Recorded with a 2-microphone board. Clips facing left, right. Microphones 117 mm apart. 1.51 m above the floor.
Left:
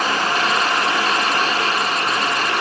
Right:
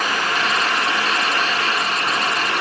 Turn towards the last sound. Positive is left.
No sound to turn to.